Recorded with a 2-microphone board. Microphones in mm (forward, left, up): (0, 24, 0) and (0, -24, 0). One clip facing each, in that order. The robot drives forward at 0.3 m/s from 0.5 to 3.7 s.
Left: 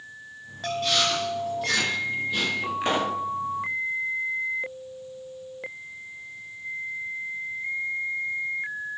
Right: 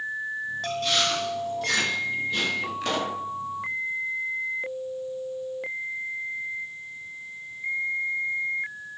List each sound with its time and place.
0.6 s chewing: 5° left (ahead or behind), 3.5 m
2.8 s a pop: 25° left (ahead or behind), 0.7 m